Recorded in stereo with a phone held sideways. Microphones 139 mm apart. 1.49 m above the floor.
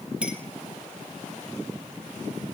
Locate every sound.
0.2 s a clink: 10° right (ahead or behind), 1.3 m